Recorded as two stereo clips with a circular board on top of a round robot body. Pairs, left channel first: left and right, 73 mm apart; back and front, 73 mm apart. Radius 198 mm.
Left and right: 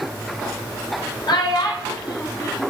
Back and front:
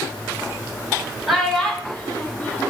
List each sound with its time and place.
1.3 s a child speaking: 90° left, 1.2 m; by 2.7 s 120° left, 1.7 m